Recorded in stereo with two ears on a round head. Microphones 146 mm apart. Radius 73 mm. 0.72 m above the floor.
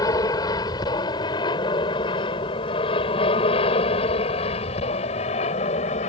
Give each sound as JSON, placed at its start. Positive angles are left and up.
{"t": 0.0, "sound": "an aircraft", "side_deg": 20}